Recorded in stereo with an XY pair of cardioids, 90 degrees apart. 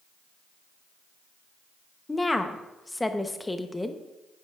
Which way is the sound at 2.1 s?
20° left.